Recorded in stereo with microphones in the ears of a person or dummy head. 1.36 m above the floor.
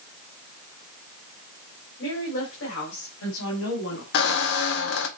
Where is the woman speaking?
75° left (ahead or behind), 4.5 m; by 4.0 s 85° left, 3 m.